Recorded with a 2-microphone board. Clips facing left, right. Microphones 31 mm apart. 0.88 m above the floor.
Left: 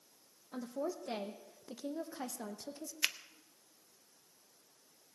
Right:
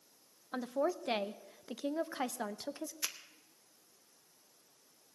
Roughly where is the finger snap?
Left.